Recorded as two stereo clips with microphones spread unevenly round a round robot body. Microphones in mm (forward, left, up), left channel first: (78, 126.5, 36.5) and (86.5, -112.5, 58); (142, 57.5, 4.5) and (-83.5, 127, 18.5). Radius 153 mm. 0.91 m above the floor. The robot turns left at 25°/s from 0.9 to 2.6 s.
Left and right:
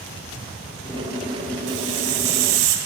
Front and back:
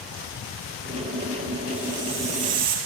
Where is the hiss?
110° right, 1.8 m; by 2.8 s 135° right, 1.8 m.